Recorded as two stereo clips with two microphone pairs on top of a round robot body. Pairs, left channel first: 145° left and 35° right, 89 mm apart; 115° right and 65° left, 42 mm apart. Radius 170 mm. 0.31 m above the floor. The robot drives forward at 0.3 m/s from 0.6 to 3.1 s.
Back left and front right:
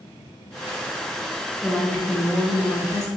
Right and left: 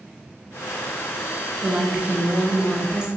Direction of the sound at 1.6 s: 105° left.